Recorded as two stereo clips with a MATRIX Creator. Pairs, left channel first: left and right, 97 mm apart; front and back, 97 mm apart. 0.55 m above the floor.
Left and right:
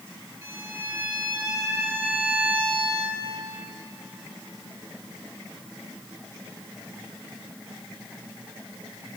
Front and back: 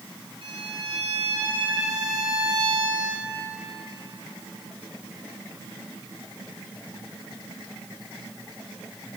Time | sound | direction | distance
0.4 | a violin | 150° right | 7.5 m